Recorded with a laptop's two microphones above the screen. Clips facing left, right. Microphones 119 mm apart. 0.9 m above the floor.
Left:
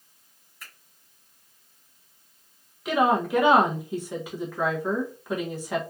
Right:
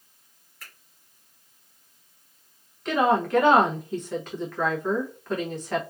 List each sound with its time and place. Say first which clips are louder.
0.6 s a finger snap: even; 10° left (ahead or behind), 1.5 m
2.9 s a woman speaking: even; 10° left (ahead or behind), 0.6 m